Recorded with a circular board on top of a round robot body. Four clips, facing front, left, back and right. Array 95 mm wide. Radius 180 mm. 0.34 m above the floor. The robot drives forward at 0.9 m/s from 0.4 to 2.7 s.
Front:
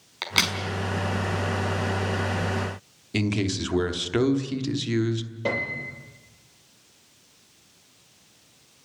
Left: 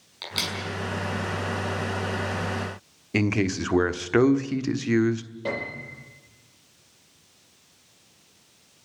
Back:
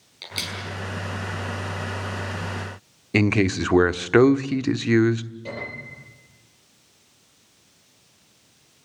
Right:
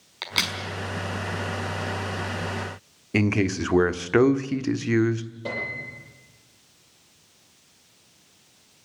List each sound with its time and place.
0.2 s a crack: 20° right, 5 m; by 0.6 s 25° right, 5 m
3.1 s a man speaking: 175° right, 1.3 m
5.5 s a piano: 15° left, 8 m